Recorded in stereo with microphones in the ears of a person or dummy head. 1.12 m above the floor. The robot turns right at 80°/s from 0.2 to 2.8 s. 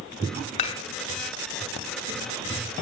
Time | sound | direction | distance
0.6 | dishes clattering | 35° left (ahead or behind) | 2 m